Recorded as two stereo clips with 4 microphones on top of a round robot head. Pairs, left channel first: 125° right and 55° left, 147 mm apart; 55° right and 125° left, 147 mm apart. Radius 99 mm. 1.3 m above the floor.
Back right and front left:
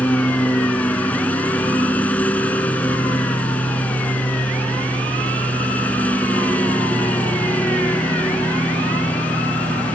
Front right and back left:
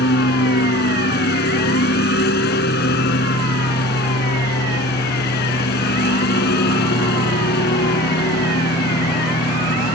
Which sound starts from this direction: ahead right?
A lawn mower, at 0.0 s.